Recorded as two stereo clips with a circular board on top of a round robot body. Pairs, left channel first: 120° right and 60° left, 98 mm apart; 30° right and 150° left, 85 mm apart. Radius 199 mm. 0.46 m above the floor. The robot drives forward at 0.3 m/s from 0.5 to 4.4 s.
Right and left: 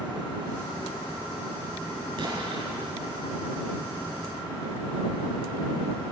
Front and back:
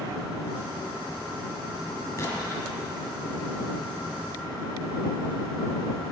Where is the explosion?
30° left, 5 m.